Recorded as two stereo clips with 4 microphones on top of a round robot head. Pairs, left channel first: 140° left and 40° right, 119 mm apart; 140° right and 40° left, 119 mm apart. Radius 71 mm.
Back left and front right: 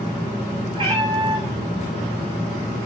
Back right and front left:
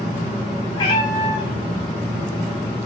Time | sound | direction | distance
0.7 | a cat meowing | 90° right | 7.5 m